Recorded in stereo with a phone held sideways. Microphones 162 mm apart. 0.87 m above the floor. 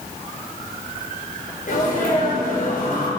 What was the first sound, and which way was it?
A sneeze, 65° left (ahead or behind).